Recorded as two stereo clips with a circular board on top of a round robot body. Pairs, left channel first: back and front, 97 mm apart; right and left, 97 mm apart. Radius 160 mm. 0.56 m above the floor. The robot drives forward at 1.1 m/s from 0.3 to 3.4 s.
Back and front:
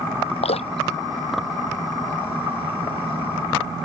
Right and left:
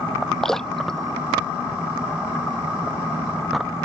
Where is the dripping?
175° right.